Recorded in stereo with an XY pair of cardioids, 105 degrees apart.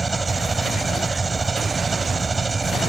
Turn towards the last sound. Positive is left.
turn(degrees=-30)